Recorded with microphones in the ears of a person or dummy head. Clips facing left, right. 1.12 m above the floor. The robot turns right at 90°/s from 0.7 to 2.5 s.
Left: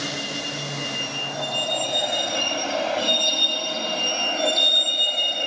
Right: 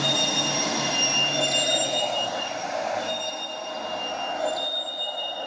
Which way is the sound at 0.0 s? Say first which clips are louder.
Right 4 dB; 80° right.